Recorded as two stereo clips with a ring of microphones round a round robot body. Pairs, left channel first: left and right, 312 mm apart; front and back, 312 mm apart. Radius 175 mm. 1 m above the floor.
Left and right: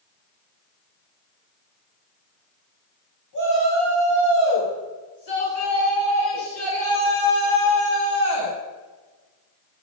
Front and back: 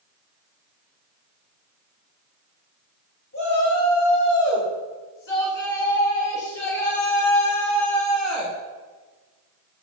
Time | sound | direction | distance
3.3 | a shout | 50° left | 6 m